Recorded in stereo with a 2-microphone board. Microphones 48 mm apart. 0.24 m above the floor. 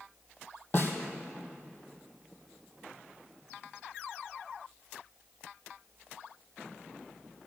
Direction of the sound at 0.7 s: 35° left (ahead or behind).